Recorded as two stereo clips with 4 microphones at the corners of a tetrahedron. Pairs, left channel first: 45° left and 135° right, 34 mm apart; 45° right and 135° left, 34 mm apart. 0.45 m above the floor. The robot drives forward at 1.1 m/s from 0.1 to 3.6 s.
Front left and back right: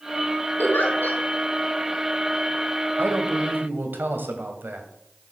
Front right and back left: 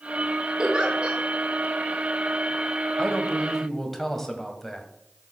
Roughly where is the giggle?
Ahead left.